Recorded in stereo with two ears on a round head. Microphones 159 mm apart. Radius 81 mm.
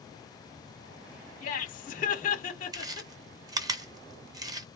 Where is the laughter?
45° left (ahead or behind), 1.3 m.